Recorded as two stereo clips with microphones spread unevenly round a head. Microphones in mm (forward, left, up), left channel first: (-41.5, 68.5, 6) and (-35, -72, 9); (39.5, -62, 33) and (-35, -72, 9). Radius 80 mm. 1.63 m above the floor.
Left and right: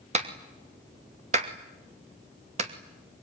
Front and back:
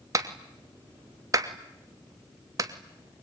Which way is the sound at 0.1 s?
125° right.